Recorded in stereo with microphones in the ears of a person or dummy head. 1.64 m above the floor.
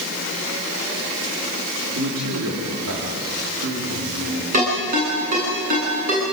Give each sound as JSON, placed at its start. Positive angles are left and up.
{"t": 1.9, "sound": "a man speaking", "side_deg": -65, "distance_m": 4.5}
{"t": 4.5, "sound": "a ringtone", "side_deg": -40, "distance_m": 9.5}